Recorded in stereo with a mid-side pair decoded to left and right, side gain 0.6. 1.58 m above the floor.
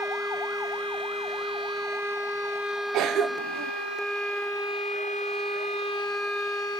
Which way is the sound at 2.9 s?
65° right.